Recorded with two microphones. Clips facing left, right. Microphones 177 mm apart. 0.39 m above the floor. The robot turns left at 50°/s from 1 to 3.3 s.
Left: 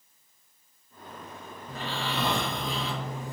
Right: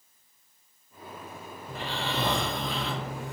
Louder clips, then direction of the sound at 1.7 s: Even; 5° right.